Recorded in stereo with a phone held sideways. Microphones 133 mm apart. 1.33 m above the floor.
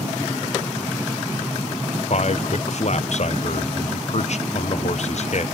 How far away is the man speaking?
About 0.6 m.